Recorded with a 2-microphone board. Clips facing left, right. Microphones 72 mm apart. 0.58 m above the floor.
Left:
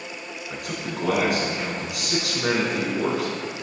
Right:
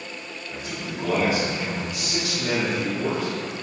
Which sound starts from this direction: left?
A man speaking, at 0.5 s.